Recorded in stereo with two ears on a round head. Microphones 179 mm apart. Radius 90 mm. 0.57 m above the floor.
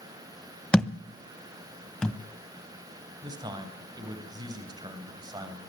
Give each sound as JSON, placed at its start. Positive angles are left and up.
{"t": 0.7, "sound": "a thud", "side_deg": 5, "distance_m": 1.1}
{"t": 3.2, "sound": "a man speaking", "side_deg": -20, "distance_m": 3.0}